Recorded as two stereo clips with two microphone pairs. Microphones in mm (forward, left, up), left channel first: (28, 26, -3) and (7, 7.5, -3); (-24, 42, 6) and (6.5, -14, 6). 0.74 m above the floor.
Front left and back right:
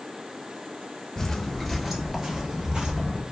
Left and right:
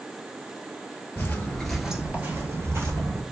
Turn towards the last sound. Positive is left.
turn(degrees=-85)